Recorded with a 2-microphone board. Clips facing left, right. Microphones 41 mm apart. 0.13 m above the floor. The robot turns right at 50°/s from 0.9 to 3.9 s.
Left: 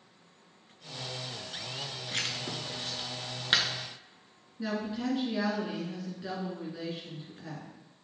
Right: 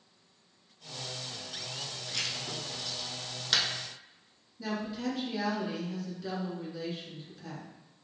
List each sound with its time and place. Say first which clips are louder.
2.1 s writing: left 2 dB; 40° left (ahead or behind), 0.7 m; by 3.6 s 25° left (ahead or behind), 0.7 m
4.6 s a woman speaking: left 1 dB; 25° left (ahead or behind), 1.7 m